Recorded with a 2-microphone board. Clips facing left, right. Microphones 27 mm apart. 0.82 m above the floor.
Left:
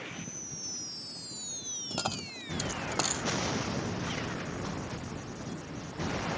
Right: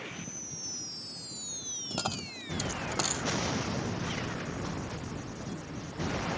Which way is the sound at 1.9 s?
5° left (ahead or behind).